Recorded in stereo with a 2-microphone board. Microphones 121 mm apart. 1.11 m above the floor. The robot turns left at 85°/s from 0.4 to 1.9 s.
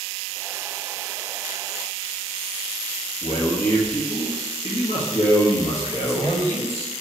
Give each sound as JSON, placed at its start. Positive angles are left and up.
{"t": 3.2, "sound": "a man speaking", "side_deg": 60, "distance_m": 1.8}
{"t": 6.0, "sound": "a man speaking", "side_deg": 50, "distance_m": 3.0}